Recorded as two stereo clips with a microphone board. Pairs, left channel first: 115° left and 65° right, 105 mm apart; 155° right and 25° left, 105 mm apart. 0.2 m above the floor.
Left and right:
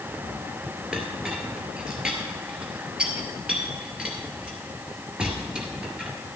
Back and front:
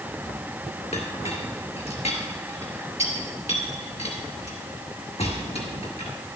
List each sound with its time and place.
0.9 s a clink: 150° right, 2 m